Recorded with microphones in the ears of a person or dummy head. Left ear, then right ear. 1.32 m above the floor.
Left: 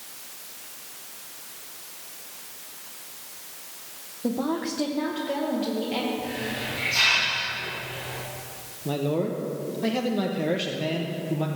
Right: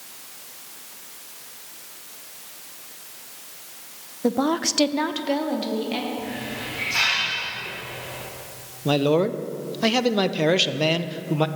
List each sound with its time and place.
4.2 s a woman speaking: 45° right (ahead or behind), 0.7 m; by 6.1 s 30° right (ahead or behind), 1.7 m
6.2 s a hiss: 50° right (ahead or behind), 4.5 m
8.8 s a man speaking: 60° right (ahead or behind), 0.6 m